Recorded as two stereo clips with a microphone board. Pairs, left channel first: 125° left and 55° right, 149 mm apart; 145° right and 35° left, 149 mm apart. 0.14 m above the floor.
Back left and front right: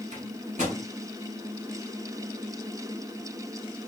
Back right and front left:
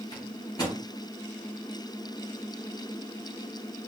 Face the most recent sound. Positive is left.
turn(degrees=-85)